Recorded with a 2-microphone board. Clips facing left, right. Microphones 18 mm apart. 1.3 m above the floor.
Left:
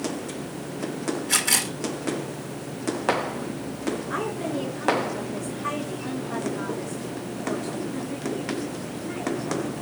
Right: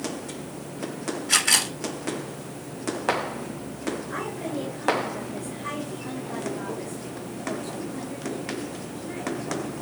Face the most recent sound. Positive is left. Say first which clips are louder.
# left 3 dB
turn(degrees=20)  # may be behind; listen again after turning